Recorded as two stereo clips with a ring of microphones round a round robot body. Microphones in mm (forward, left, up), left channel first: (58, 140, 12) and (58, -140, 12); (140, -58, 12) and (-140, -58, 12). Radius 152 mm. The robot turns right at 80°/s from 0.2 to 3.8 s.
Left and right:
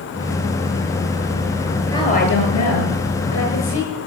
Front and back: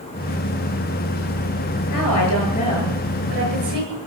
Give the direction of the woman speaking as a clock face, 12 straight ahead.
12 o'clock.